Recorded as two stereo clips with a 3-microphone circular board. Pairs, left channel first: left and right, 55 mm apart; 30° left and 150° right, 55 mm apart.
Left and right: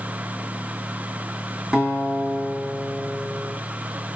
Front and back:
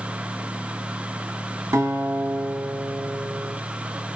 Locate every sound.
1.7 s a guitar: 165° right, 2.5 m